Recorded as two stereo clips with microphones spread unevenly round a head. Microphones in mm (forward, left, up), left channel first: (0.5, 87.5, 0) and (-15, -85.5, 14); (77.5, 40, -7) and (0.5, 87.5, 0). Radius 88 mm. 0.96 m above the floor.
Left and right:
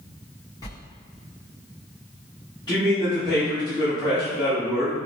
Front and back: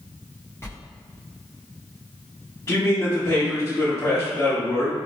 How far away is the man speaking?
About 1.6 m.